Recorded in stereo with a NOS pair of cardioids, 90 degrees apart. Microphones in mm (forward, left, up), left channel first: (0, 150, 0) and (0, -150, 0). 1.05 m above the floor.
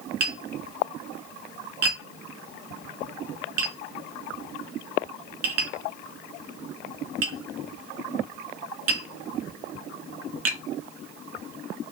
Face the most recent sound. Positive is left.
turn(degrees=-60)